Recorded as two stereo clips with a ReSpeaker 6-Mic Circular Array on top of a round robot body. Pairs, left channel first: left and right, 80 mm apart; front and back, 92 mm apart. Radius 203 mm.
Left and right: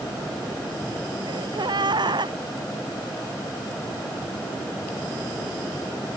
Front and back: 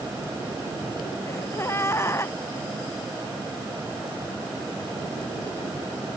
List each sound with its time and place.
1.3 s a gasp: 65° right